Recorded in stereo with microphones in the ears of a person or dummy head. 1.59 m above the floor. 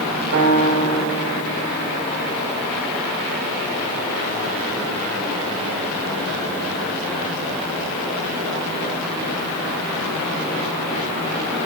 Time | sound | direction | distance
0.3 | a piano | 65° right (ahead or behind) | 4 m